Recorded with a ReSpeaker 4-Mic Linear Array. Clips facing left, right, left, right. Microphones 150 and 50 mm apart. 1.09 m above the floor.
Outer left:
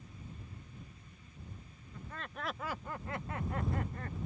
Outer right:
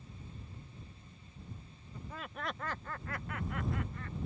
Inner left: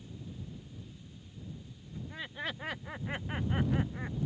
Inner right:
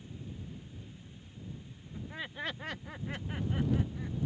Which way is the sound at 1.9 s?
15° right (ahead or behind).